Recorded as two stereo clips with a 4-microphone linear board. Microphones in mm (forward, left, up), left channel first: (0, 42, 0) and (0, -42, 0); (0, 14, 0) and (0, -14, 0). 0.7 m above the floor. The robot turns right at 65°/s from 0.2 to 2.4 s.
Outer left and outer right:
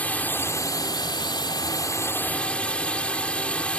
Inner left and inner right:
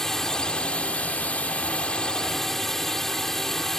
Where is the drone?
20° left; by 3.8 s 165° left.